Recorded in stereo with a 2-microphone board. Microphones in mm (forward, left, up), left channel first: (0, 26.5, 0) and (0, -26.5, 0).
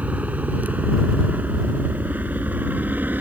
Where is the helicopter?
30° right (ahead or behind); by 3.2 s 35° right (ahead or behind).